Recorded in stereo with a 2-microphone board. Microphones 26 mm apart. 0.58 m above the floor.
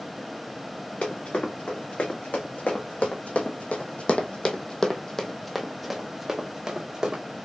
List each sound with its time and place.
1.0 s running footsteps: 80° left, 2.5 m; by 7.2 s 30° right (ahead or behind), 1.8 m